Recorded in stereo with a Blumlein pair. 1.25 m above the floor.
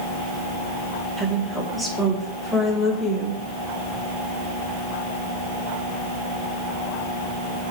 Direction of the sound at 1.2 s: 5° right.